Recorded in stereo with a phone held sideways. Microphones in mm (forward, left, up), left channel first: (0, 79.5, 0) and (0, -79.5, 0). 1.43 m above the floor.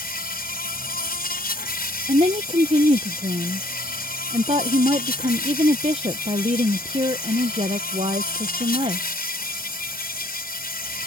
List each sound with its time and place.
0.0 s an insect: 80° left
2.1 s a woman speaking: 40° right (ahead or behind)